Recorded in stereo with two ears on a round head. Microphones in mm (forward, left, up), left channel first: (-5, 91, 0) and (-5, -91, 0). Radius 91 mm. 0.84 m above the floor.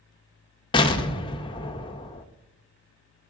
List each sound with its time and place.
0.7 s an explosion: 25° left (ahead or behind), 0.6 m